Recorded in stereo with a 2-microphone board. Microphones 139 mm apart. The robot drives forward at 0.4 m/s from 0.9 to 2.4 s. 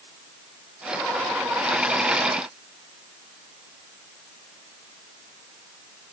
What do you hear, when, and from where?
Only background noise.